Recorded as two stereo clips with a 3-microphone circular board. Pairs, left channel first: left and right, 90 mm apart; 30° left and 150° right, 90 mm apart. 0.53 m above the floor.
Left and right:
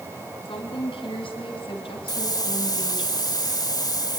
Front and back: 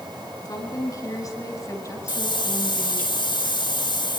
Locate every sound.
0.5 s a woman speaking: 75° left, 6 m; by 3.1 s 100° left, 3.5 m
2.1 s a hiss: 50° left, 1.4 m